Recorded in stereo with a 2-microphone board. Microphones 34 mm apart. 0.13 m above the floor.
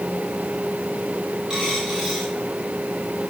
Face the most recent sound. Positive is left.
turn(degrees=-20)  # may be behind; listen again after turning